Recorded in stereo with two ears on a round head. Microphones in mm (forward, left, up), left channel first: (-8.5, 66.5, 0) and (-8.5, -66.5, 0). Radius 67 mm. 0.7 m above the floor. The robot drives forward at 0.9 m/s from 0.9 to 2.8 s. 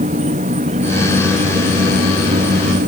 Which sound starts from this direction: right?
An insect, at 0.0 s.